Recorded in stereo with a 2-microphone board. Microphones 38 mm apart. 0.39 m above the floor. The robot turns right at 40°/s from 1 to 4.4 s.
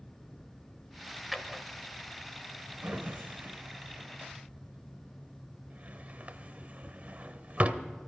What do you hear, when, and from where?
1.3 s a drawer: 5° right (ahead or behind), 0.8 m; by 7.8 s 40° right (ahead or behind), 0.8 m